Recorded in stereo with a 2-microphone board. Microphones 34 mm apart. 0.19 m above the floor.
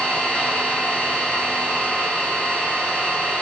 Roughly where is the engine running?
Left.